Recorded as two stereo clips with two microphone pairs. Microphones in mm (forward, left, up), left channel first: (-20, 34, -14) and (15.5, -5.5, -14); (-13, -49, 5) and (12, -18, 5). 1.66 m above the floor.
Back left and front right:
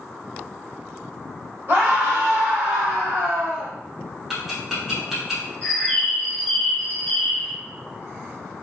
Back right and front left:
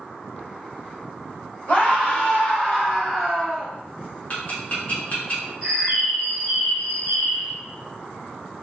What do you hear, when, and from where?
1.7 s a scream: 80° right, 1.4 m; by 3.7 s 25° right, 0.9 m
4.3 s ticking: 135° right, 1.1 m
5.6 s a bird: 110° left, 1.7 m